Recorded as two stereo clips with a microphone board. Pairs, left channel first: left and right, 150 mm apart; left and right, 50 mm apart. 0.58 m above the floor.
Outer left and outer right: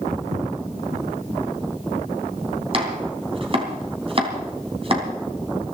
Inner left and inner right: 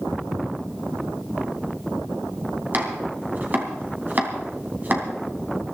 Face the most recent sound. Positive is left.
turn(degrees=-40)  # may be behind; listen again after turning